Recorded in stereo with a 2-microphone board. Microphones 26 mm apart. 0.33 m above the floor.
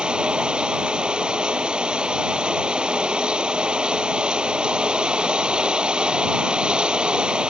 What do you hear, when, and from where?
0.0 s running water: 35° right (ahead or behind)